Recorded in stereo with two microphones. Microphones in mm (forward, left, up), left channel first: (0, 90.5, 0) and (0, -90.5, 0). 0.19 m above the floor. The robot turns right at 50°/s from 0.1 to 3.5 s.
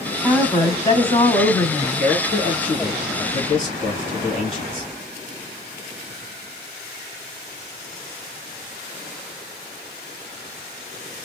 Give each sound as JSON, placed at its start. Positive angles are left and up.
{"t": 0.2, "sound": "a woman speaking", "side_deg": 10, "distance_m": 1.1}
{"t": 1.8, "sound": "a man speaking", "azimuth_deg": 30, "distance_m": 2.0}